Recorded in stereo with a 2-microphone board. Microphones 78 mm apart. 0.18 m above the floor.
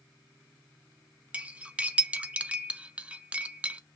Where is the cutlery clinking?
15° right (ahead or behind), 0.6 m.